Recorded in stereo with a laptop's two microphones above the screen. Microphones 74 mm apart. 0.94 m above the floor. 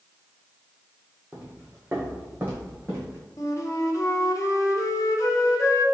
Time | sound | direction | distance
1.3 | footsteps | 15° right (ahead or behind) | 1.3 m
3.4 | a flute | 45° left (ahead or behind) | 0.7 m